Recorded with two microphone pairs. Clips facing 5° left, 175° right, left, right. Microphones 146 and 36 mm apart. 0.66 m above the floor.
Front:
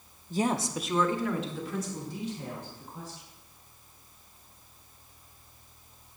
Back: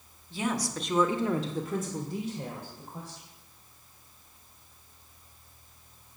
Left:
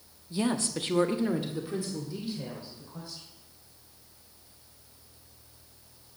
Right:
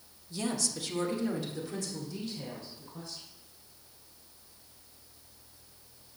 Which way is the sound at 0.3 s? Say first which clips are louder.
Front 3 dB, left 5 dB; 35° left.